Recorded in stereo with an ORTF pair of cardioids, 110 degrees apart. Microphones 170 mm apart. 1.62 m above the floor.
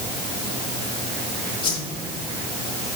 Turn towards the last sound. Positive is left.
turn(degrees=30)